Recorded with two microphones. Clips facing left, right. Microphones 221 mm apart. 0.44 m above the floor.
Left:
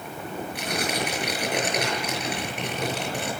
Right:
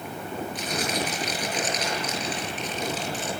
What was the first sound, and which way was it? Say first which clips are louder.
Tearing paper: left 2 dB; 65° left (ahead or behind).